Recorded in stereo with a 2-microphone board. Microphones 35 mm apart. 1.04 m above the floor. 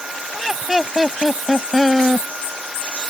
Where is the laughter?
10° right (ahead or behind); by 2.3 s centre (ahead or behind).